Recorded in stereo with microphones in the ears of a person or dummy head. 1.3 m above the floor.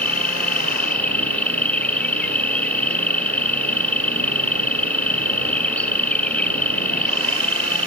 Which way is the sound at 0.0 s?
10° left (ahead or behind).